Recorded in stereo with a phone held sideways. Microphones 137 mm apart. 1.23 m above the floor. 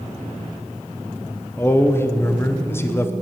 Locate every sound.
1.6 s a man speaking: 15° left (ahead or behind), 0.6 m